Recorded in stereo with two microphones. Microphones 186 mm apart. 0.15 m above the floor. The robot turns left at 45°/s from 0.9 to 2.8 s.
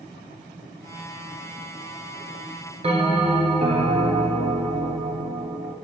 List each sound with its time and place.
2.8 s a bell: 35° right (ahead or behind), 0.9 m